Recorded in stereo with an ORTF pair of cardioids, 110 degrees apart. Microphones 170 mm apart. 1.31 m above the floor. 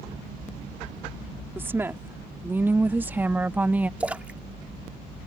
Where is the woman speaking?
15° right; by 3.9 s 10° right.